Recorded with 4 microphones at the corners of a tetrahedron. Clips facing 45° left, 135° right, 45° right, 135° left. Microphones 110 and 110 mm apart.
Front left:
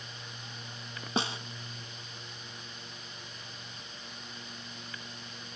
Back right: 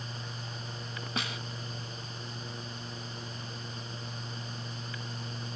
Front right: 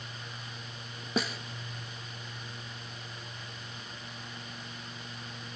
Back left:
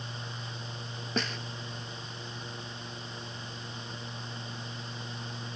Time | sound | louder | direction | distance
1.2 | a snare drum | front left 5 dB, front right 2 dB | 30° left | 0.9 m